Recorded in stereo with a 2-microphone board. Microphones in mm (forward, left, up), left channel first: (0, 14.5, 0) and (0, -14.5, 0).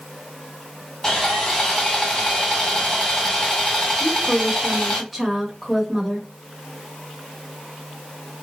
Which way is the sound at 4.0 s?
5° right (ahead or behind).